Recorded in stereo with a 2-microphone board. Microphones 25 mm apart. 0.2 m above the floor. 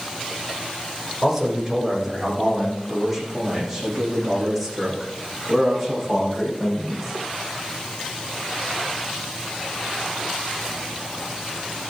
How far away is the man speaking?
About 8.5 m.